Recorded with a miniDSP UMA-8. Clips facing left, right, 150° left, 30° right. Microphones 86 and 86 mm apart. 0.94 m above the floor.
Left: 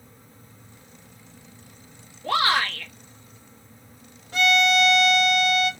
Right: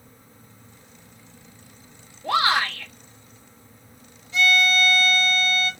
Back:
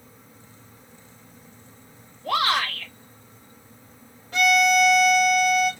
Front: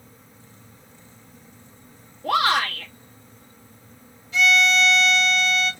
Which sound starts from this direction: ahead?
A shout, at 2.2 s.